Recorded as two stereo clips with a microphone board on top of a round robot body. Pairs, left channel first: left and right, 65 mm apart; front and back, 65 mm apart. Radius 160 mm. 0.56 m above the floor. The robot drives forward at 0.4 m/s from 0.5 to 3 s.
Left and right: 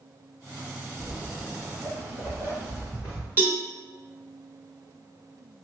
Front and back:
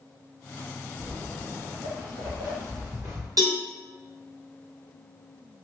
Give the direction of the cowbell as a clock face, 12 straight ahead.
5 o'clock.